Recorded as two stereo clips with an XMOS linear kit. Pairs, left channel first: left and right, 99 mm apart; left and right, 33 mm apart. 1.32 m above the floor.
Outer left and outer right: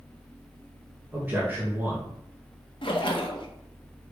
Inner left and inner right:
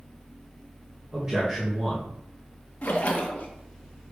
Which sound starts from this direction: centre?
A man speaking, at 1.1 s.